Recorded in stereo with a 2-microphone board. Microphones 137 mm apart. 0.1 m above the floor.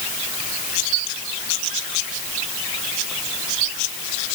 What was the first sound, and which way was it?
Only background noise.